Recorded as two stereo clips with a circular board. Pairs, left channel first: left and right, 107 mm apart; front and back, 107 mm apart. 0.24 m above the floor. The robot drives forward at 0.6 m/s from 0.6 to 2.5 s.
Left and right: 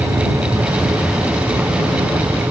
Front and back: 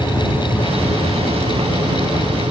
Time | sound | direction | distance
0.0 | an insect | 120° right | ?